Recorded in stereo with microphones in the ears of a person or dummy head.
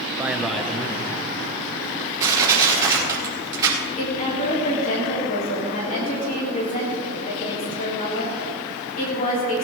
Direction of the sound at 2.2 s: 20° right (ahead or behind).